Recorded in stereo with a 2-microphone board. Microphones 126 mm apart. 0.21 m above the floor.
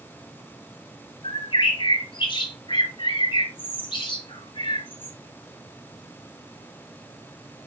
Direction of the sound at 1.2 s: 40° left (ahead or behind).